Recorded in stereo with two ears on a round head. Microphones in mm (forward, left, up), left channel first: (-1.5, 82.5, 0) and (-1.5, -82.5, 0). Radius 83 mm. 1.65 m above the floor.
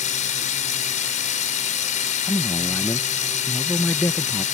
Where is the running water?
40° left (ahead or behind).